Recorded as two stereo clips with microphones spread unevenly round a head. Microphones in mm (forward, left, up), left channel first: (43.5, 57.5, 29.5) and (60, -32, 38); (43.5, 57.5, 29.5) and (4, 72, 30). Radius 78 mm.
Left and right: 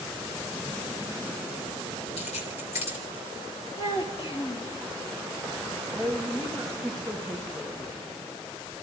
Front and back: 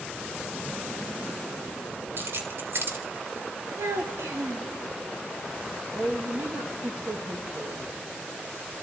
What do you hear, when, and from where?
2.2 s keys jangling: 135° left, 3 m
3.8 s a child speaking: 165° left, 2.0 m
5.9 s a woman speaking: 160° right, 1.6 m